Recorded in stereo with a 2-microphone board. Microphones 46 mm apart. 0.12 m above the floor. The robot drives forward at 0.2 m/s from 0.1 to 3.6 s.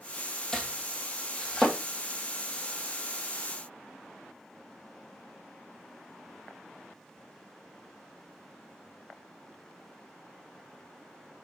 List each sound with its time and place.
0.5 s chopping: 10° left (ahead or behind), 1.0 m